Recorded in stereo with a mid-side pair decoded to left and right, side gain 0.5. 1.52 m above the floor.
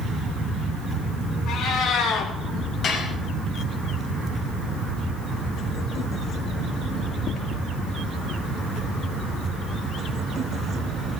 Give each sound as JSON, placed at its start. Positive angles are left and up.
{"t": 1.5, "sound": "a cat meowing", "azimuth_deg": 65, "distance_m": 6.5}
{"t": 2.8, "sound": "dishes clattering", "azimuth_deg": 55, "distance_m": 5.5}